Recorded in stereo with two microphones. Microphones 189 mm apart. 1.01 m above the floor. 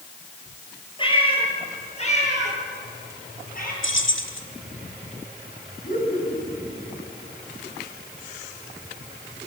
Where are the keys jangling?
85° left, 1.9 m.